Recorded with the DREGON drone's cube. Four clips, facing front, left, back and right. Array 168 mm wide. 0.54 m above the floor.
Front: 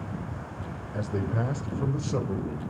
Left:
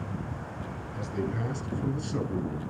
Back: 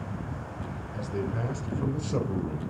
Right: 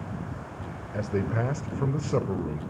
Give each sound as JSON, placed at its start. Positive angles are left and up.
{"t": 0.9, "sound": "a man speaking", "azimuth_deg": -60, "distance_m": 1.8}